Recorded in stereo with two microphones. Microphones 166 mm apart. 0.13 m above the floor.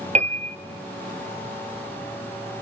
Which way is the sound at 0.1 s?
40° right (ahead or behind).